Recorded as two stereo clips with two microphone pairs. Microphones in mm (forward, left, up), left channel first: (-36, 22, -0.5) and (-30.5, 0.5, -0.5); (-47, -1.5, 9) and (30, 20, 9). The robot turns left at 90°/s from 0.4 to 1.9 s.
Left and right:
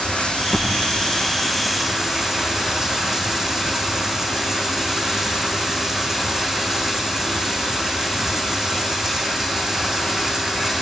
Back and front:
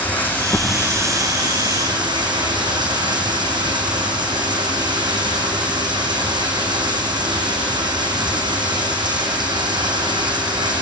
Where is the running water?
125° left, 6.5 m; by 10.8 s 10° right, 6.5 m.